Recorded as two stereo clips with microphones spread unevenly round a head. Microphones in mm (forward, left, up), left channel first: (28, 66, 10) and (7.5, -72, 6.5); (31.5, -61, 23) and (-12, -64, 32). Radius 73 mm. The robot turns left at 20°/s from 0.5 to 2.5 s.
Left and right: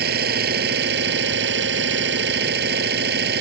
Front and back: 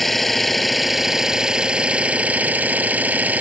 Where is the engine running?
85° right; by 3.4 s 125° right.